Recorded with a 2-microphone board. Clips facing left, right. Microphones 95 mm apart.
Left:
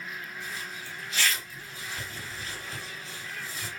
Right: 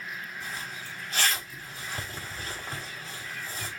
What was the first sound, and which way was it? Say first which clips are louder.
A zipper: right 1 dB; 50° right (ahead or behind).